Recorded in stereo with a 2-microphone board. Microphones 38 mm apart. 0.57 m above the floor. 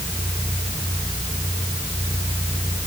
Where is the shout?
No shout in this recording.